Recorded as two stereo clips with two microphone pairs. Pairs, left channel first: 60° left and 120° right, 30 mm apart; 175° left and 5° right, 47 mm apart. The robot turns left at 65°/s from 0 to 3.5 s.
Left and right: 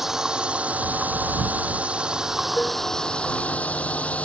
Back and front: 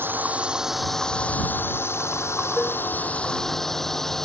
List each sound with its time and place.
0.0 s a drone: 45° right; by 4.2 s 90° left
2.6 s dishes clattering: 90° left; by 2.8 s 75° left